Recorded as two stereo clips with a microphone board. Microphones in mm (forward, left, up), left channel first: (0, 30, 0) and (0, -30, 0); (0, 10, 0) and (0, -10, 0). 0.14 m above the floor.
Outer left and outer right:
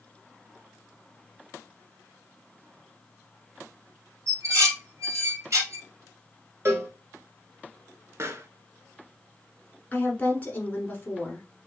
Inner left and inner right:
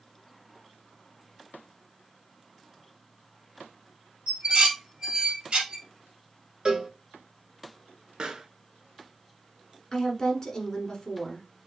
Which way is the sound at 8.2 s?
50° right (ahead or behind).